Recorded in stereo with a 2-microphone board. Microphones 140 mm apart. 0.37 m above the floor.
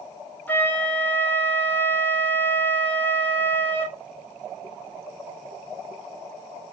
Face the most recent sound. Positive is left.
turn(degrees=15)  # may be behind; listen again after turning